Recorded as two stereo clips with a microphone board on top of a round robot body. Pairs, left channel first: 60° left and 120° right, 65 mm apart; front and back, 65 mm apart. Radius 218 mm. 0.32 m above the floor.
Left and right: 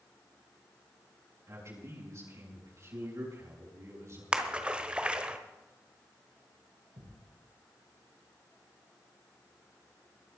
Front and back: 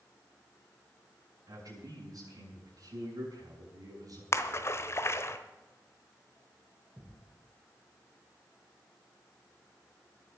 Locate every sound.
1.5 s a man speaking: 160° right, 6.5 m
4.3 s a splash: 45° right, 1.3 m
7.0 s a thud: 105° right, 9.5 m